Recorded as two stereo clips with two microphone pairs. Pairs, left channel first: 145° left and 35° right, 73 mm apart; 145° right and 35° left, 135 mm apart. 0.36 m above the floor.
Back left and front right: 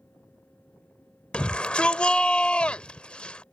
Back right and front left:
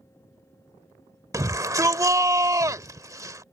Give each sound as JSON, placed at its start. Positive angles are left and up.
{"t": 1.3, "sound": "a shout", "azimuth_deg": 80}